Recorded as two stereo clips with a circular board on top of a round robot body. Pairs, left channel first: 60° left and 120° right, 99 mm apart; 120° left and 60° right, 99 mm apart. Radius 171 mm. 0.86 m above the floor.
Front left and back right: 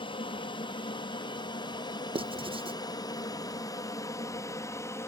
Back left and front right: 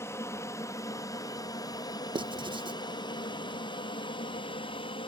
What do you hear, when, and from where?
0.0 s an aircraft: 60° left; by 5.1 s 115° left
2.1 s writing: 95° right